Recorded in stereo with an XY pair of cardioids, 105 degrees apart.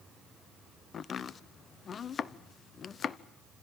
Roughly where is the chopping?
Ahead left.